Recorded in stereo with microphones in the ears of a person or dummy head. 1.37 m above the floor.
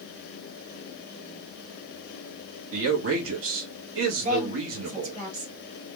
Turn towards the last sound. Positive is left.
turn(degrees=-45)  # may be behind; listen again after turning